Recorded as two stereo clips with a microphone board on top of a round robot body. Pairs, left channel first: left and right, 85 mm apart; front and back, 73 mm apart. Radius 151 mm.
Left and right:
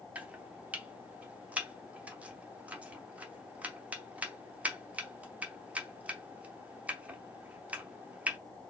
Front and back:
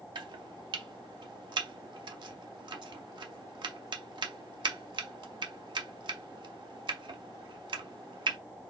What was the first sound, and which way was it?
Chopping, 165° right.